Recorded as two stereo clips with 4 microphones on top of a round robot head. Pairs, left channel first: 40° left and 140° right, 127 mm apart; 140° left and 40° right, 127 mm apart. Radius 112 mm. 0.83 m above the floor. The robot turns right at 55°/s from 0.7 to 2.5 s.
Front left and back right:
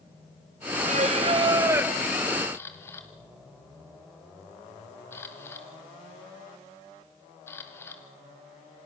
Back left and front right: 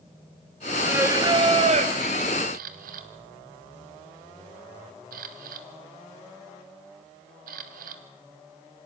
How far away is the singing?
About 1.7 m.